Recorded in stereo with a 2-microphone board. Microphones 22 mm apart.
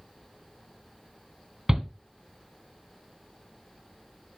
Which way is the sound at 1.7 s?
30° right (ahead or behind).